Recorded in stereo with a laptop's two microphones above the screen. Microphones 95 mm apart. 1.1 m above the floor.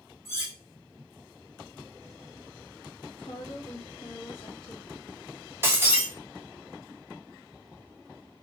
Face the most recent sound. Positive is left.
turn(degrees=-25)  # may be behind; listen again after turning